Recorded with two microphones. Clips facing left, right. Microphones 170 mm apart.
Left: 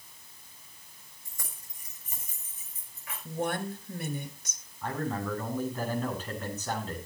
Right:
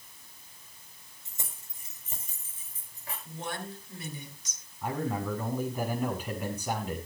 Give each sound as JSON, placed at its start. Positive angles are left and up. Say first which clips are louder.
{"t": 1.2, "sound": "keys jangling", "louder": "right 2 dB", "side_deg": -25, "distance_m": 6.0}
{"t": 3.2, "sound": "a woman speaking", "louder": "left 7 dB", "side_deg": 55, "distance_m": 3.5}
{"t": 4.8, "sound": "a man speaking", "louder": "right 1 dB", "side_deg": -10, "distance_m": 7.0}